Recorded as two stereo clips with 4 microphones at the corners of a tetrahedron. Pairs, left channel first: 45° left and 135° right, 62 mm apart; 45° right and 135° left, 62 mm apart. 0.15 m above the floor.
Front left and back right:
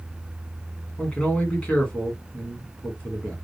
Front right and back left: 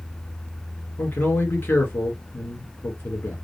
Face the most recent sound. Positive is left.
turn(degrees=-15)